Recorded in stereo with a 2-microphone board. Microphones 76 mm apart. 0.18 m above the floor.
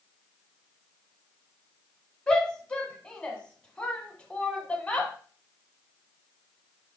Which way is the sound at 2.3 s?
15° left (ahead or behind).